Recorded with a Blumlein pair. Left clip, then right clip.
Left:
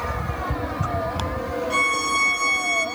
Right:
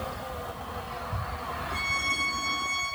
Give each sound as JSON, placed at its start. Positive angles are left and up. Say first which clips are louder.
{"t": 1.7, "sound": "a violin", "louder": "left 7 dB", "azimuth_deg": 40, "distance_m": 3.5}